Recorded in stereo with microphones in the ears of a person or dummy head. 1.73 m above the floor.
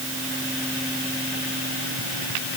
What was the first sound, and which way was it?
Only background noise.